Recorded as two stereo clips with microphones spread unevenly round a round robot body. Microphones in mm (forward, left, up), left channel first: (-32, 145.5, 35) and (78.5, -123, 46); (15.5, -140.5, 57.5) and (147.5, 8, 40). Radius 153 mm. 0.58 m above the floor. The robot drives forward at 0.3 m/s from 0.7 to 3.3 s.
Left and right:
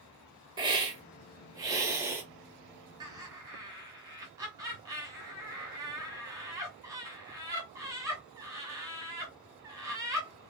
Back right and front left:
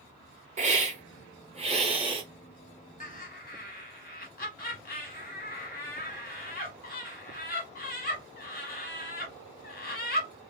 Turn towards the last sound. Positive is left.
turn(degrees=-145)